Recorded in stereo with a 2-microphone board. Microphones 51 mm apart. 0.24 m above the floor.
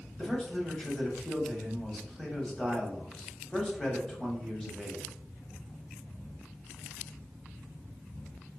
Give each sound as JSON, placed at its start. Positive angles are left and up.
{"t": 0.2, "sound": "a man speaking", "side_deg": 10, "distance_m": 1.0}